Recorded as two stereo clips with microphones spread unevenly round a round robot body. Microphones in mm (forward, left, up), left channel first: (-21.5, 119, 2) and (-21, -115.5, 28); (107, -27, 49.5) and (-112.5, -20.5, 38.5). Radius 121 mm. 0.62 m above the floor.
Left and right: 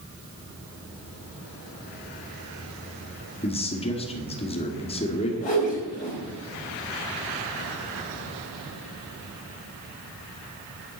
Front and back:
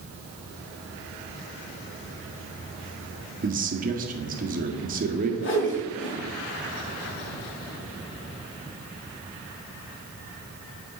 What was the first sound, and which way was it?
A man speaking, 145° left.